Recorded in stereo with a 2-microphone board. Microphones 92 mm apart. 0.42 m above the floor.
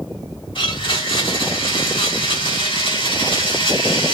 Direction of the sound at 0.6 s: 70° left (ahead or behind).